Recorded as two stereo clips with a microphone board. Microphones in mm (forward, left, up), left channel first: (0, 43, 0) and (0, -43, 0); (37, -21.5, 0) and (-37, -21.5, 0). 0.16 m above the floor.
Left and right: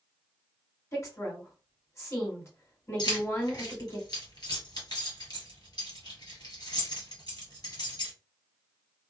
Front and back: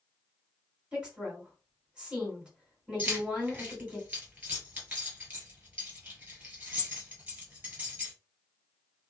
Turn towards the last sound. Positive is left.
turn(degrees=115)